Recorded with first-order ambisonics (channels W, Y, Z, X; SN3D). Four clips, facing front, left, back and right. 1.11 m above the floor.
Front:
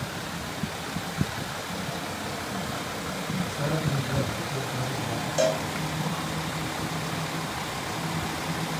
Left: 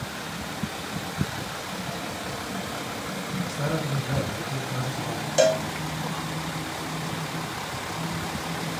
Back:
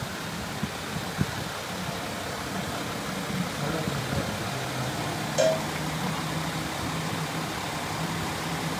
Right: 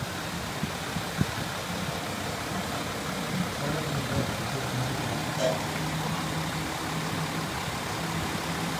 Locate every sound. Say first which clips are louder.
3.5 s a man speaking: left 2 dB, front 1 dB; 70° left, 3.5 m
5.4 s a cowbell: left 8 dB, back 1 dB; 90° left, 1.3 m